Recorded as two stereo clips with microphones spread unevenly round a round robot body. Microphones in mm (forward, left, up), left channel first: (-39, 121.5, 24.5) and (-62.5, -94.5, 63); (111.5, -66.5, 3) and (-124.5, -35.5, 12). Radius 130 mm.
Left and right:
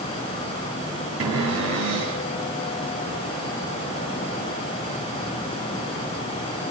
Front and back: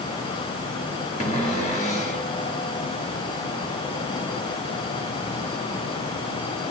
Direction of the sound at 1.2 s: 70° right.